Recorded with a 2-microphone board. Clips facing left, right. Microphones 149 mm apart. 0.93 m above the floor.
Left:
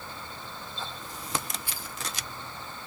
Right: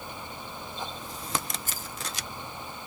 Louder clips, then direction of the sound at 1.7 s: Right 1 dB; 40° right (ahead or behind).